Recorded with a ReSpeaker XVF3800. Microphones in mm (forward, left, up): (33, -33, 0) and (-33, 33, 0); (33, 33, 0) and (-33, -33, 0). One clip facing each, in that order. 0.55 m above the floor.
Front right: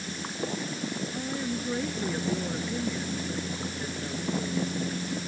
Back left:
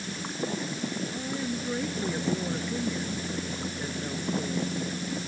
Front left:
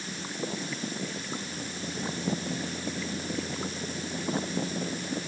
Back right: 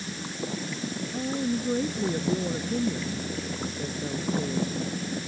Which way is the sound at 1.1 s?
130° right.